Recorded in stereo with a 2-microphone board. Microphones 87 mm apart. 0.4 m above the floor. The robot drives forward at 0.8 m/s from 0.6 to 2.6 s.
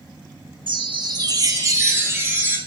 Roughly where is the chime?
Right.